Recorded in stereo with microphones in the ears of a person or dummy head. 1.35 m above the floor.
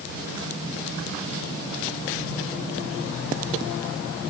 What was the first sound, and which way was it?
Only background noise.